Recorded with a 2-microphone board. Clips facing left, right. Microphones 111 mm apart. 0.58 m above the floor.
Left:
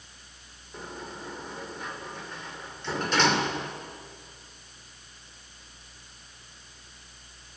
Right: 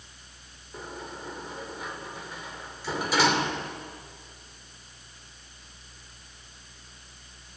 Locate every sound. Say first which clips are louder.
0.7 s a sliding door: even; 5° right (ahead or behind), 2 m